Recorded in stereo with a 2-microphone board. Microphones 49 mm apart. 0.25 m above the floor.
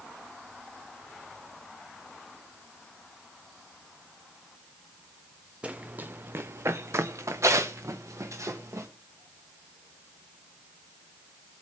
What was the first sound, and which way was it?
Running footsteps, 25° right (ahead or behind).